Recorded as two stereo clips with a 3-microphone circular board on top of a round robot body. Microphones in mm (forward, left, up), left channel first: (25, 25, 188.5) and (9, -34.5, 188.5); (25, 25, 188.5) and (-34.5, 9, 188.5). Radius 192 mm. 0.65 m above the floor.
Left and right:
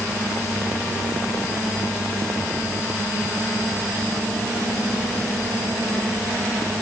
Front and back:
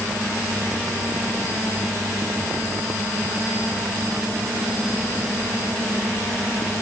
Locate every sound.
Only background noise.